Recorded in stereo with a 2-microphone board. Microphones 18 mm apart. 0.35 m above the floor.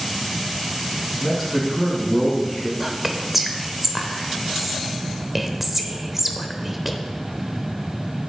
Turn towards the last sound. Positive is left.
turn(degrees=-10)  # may be behind; listen again after turning